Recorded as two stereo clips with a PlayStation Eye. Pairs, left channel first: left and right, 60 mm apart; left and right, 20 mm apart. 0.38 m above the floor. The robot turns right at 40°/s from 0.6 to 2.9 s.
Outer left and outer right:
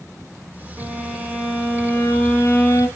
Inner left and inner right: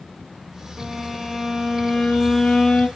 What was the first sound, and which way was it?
A violin, 20° right.